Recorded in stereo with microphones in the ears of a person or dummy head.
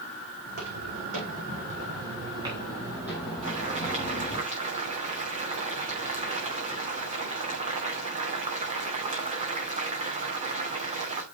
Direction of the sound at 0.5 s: 50° right (ahead or behind).